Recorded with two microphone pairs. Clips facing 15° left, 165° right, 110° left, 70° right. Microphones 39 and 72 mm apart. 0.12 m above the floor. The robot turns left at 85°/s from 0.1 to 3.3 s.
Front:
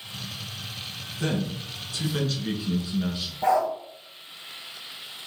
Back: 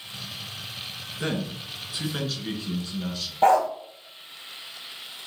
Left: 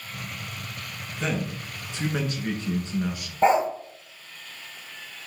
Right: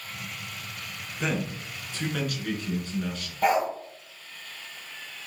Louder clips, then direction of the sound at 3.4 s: Back 3 dB, left 4 dB; 175° left.